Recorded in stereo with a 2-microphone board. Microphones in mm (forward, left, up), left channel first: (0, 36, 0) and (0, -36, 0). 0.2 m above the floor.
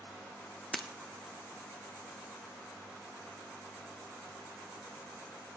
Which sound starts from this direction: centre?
Breaking glass, at 0.7 s.